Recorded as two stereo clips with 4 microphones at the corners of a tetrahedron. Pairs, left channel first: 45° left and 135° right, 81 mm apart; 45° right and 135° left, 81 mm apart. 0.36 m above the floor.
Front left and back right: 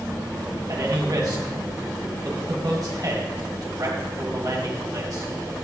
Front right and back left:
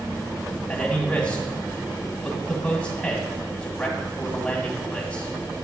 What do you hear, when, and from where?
0.7 s a man speaking: 110° right, 1.8 m